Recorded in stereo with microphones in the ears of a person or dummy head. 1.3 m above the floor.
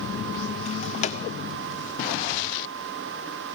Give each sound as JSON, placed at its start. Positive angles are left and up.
{"t": 0.7, "sound": "a drawer", "side_deg": 30, "distance_m": 1.2}